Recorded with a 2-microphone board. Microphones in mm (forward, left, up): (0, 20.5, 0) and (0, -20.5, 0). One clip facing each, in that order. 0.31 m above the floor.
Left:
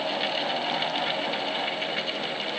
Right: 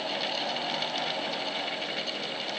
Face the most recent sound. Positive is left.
No sound to turn to.